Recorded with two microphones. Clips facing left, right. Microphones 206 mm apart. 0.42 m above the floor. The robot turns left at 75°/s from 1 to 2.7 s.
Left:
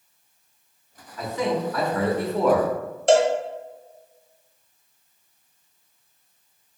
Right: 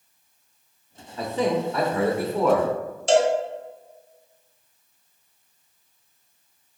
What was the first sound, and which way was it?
A man speaking, 85° right.